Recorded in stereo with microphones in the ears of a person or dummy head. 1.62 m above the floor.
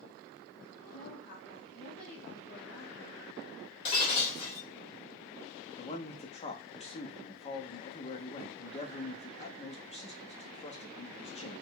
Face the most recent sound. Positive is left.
turn(degrees=35)  # may be behind; listen again after turning